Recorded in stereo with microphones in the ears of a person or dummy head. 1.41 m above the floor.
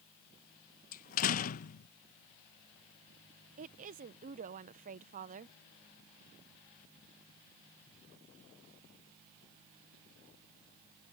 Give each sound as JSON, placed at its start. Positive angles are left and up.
{"t": 0.9, "sound": "a door slam", "side_deg": 45}
{"t": 3.6, "sound": "a woman speaking", "side_deg": -50}